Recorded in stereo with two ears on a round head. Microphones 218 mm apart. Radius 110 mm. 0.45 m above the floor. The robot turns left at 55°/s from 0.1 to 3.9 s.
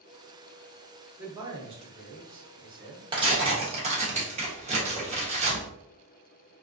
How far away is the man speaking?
About 0.8 m.